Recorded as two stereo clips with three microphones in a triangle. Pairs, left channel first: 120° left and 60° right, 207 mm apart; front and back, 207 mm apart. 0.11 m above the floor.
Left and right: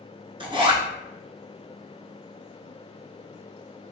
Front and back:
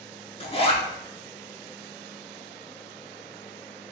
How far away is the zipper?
About 0.8 m.